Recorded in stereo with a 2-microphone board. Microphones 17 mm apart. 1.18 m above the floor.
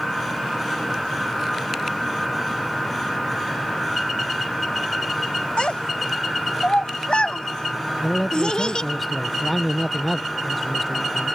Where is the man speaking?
5° left (ahead or behind).